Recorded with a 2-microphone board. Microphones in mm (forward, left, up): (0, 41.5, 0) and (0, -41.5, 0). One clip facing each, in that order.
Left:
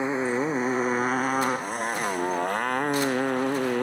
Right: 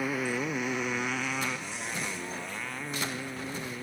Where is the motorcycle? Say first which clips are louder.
Left 6 dB; 25° left (ahead or behind); by 3.8 s 65° left (ahead or behind).